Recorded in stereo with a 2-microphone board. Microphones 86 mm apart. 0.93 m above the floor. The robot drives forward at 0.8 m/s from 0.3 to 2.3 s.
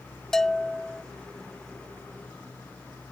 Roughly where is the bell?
Centre.